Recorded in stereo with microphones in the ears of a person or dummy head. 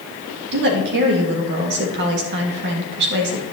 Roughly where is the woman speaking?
Right.